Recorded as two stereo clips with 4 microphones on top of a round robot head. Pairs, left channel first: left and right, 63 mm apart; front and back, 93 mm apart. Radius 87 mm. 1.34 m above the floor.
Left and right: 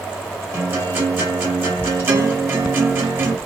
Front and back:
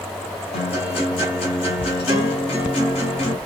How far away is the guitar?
About 2.5 m.